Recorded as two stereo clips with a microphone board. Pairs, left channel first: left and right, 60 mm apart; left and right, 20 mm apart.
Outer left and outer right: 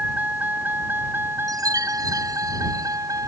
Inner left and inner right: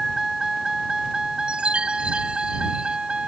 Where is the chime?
85° right.